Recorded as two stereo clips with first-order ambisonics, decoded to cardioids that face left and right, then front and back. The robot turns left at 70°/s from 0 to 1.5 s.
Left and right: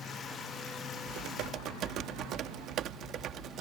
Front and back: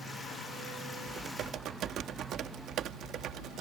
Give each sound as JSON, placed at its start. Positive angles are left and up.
{"t": 1.1, "sound": "typing on a keyboard", "azimuth_deg": -105}